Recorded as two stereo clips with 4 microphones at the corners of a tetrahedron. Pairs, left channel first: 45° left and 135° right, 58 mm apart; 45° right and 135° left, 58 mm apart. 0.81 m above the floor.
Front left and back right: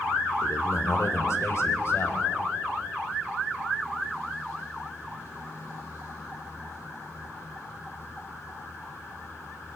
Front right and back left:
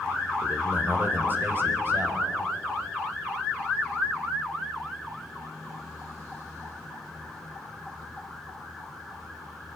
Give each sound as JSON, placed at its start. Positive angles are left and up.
{"t": 0.4, "sound": "a man speaking", "azimuth_deg": 65, "distance_m": 2.0}